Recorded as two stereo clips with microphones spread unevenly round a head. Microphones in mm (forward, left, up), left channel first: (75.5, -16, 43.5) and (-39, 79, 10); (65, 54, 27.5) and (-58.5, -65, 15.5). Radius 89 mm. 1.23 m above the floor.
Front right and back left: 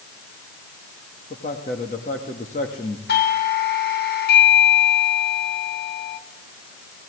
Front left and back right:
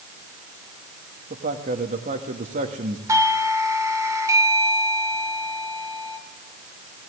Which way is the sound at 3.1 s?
65° right.